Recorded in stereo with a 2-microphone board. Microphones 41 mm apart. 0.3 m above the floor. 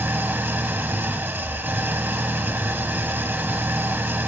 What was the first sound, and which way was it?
An engine running, 60° right (ahead or behind).